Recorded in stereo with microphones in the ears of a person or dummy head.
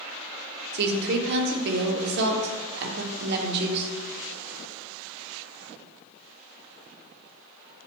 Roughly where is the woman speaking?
Right.